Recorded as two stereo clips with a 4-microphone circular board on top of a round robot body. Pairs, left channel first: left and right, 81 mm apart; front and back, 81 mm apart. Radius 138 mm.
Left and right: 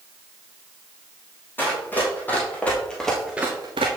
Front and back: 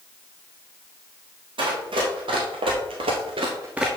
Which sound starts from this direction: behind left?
Running footsteps, at 1.6 s.